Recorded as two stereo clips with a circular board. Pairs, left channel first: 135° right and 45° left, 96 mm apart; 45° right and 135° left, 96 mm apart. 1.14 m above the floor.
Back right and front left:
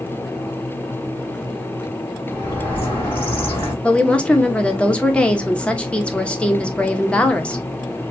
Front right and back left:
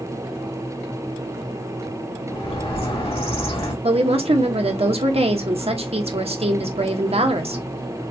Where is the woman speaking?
145° left, 1.0 m.